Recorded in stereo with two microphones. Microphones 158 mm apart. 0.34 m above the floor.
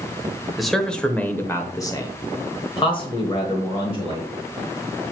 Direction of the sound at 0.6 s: Centre (ahead or behind).